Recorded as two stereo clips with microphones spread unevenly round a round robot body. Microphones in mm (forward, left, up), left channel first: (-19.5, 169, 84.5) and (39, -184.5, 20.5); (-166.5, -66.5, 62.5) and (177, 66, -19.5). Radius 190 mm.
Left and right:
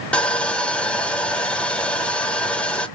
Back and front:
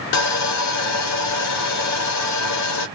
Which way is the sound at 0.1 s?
155° right.